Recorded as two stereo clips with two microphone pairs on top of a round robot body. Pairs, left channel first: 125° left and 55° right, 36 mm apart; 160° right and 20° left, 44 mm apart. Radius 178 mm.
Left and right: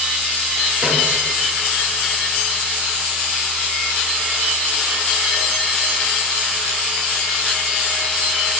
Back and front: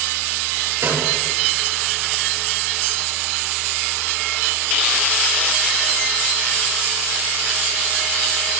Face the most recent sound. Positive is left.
turn(degrees=15)